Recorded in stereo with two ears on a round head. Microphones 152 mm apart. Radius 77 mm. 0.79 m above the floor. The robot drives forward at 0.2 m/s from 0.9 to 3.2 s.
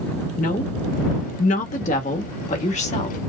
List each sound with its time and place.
0.4 s a woman speaking: 50° left (ahead or behind), 1.3 m; by 3.2 s 40° left (ahead or behind), 1.5 m